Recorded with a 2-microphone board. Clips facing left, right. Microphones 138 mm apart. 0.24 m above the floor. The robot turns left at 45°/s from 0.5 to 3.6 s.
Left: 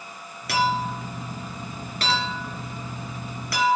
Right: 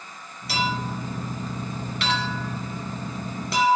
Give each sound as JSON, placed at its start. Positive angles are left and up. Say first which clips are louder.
{"t": 0.5, "sound": "a clink", "louder": "left 3 dB", "side_deg": 65, "distance_m": 2.5}